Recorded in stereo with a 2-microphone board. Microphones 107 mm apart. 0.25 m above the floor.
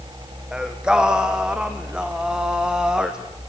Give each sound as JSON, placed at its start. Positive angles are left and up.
{"t": 0.5, "sound": "singing", "side_deg": -5, "distance_m": 2.0}